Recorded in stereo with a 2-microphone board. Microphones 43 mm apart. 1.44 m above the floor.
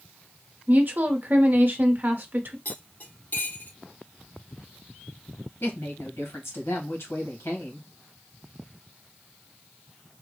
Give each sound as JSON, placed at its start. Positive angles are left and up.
{"t": 0.7, "sound": "a woman speaking", "side_deg": -50, "distance_m": 0.9}
{"t": 2.6, "sound": "cutlery clinking", "side_deg": 45, "distance_m": 2.5}
{"t": 5.6, "sound": "a woman speaking", "side_deg": 80, "distance_m": 1.6}